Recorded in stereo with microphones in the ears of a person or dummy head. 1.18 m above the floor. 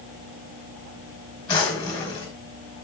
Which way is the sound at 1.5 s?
25° left (ahead or behind).